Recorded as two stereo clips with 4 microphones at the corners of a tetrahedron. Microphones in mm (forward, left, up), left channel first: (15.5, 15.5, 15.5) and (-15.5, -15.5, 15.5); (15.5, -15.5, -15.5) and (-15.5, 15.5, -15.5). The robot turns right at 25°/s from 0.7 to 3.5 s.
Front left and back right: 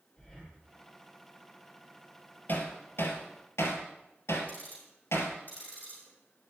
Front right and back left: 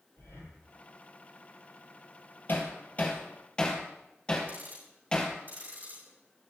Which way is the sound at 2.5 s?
Straight ahead.